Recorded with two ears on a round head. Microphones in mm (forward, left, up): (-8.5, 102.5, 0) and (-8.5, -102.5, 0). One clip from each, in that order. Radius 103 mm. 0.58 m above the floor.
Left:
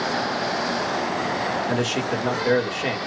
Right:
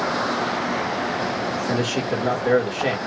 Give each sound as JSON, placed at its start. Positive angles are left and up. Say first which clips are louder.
{"t": 1.7, "sound": "a man speaking", "louder": "even", "side_deg": 20, "distance_m": 1.3}